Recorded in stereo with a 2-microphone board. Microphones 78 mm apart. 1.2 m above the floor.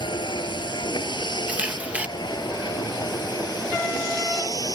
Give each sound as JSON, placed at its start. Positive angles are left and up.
{"t": 0.0, "sound": "a vehicle", "side_deg": 80}
{"t": 1.5, "sound": "a camera shutter", "side_deg": -15}